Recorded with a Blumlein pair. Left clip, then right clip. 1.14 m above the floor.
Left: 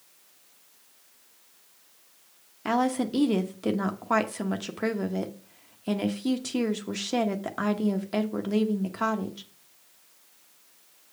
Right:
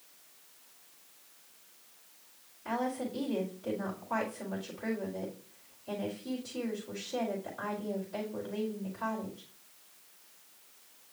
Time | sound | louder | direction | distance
2.6 | a woman speaking | left 8 dB | 50° left | 0.9 m